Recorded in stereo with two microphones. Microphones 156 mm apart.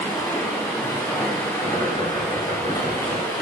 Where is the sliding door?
I don't hear a sliding door.